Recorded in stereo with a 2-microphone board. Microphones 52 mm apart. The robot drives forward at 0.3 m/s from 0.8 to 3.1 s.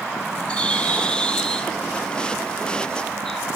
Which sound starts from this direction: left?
A bird, at 0.5 s.